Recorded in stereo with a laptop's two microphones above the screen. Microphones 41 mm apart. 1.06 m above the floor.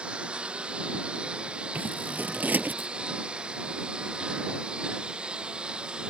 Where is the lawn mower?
25° right (ahead or behind).